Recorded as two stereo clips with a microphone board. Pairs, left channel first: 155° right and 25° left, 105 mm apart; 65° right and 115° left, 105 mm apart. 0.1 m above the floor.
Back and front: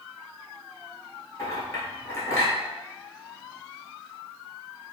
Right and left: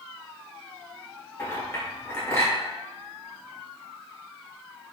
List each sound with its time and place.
1.4 s a clink: 115° right, 1.4 m